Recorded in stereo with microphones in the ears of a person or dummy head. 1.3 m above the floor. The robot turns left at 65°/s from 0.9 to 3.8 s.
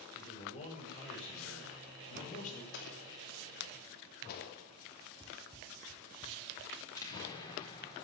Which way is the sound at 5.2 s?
15° left (ahead or behind).